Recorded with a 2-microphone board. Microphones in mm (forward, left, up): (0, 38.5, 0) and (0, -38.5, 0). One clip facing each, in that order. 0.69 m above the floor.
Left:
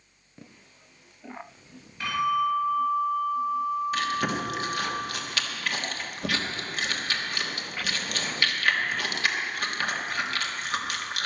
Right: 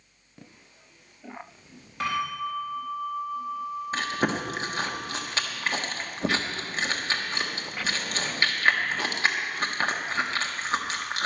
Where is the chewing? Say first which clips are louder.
Even; 30° right (ahead or behind), 1.2 m.